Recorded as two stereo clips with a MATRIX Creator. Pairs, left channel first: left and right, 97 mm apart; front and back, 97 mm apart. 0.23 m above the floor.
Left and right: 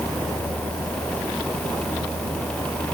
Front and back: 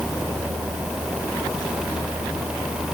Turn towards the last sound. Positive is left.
No sound to turn to.